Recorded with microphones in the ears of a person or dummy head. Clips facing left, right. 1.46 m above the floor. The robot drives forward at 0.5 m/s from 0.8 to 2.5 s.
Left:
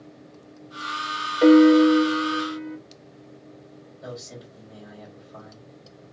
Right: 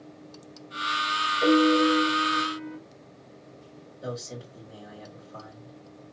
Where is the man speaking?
40° right (ahead or behind), 2.0 m.